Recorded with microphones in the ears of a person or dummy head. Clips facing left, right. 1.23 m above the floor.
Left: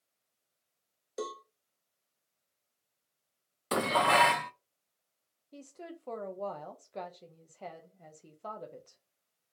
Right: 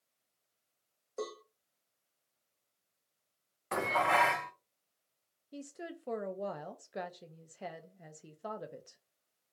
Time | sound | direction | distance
1.2 | a cowbell | 20° left (ahead or behind) | 0.5 m
3.7 | dishes clattering | 50° left (ahead or behind) | 0.5 m
5.5 | a woman speaking | 10° right (ahead or behind) | 0.6 m